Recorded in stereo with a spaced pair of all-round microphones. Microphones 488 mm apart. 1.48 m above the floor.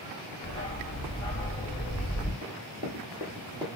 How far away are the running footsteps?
About 1.7 m.